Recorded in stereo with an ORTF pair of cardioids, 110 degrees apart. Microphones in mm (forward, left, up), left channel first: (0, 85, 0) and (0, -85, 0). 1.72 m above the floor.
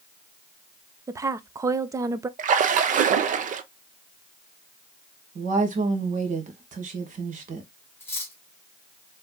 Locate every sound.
1.1 s a woman speaking: 20° right, 0.5 m
2.4 s a splash: 50° right, 0.7 m
5.3 s a woman speaking: 50° right, 1.7 m
8.0 s cutlery clinking: 15° left, 3 m